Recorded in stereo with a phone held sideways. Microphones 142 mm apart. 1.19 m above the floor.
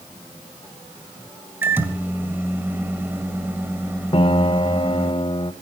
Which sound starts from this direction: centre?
A microwave, at 1.6 s.